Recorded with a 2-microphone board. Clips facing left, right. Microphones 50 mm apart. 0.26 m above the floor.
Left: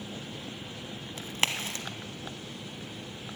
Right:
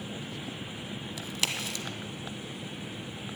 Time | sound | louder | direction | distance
1.2 | a crack | left 3 dB | 35° left (ahead or behind) | 1.0 m